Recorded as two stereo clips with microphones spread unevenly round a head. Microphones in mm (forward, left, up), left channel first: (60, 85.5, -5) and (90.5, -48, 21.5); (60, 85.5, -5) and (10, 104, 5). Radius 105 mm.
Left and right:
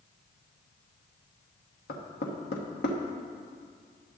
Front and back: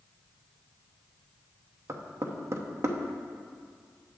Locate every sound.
1.9 s knocking: 130° left, 0.9 m